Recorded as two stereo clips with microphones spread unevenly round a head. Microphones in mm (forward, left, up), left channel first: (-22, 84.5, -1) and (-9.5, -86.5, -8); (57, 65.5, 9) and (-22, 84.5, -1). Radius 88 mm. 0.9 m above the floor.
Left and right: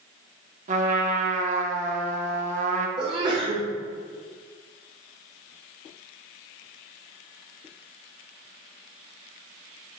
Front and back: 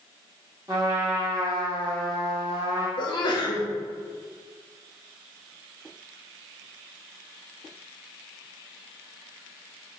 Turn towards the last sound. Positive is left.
turn(degrees=-35)